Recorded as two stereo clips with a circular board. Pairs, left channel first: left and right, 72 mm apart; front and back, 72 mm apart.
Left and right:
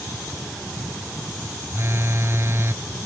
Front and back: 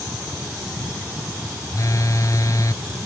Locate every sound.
1.7 s a phone buzzing: 40° right